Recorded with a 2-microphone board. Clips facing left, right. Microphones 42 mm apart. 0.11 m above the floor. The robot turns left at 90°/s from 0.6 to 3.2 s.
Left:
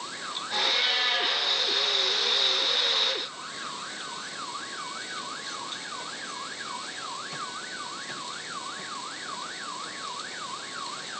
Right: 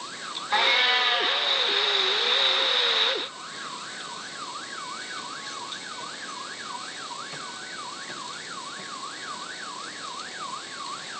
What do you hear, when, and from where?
0.5 s a cat meowing: 100° right, 2.5 m; by 1.5 s straight behind, 2.5 m